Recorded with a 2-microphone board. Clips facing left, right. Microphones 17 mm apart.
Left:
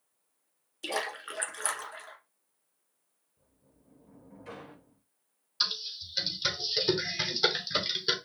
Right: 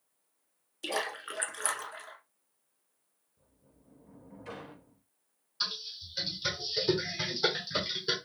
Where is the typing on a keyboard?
30° left (ahead or behind), 1.3 m.